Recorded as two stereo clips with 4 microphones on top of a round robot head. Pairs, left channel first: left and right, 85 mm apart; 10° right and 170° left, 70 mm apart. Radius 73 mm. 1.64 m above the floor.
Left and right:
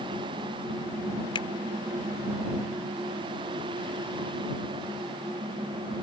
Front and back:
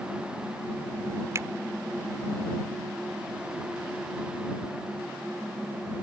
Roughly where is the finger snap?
Behind left.